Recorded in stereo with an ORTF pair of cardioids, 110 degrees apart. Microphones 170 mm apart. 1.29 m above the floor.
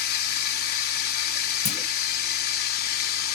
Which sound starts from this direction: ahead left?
A clunk, at 1.6 s.